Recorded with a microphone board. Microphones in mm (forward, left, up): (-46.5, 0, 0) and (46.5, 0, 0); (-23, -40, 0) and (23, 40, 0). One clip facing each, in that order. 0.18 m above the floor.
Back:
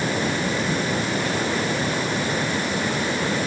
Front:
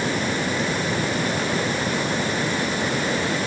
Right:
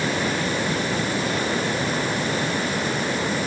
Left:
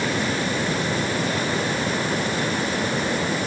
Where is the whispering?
No whispering in this recording.